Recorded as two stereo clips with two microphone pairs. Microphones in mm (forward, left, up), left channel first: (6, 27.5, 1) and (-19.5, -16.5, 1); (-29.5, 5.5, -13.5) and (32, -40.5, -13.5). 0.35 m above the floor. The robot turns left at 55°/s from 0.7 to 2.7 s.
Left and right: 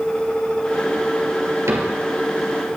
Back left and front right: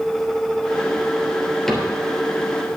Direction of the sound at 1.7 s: 130° right.